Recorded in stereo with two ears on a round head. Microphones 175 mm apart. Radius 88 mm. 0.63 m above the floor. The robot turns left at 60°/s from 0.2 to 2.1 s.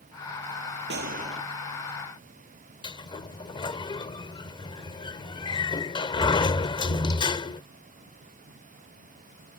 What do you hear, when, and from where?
0.9 s a gunshot: 120° right; by 1.4 s 150° right
2.8 s a sliding door: 25° left (ahead or behind)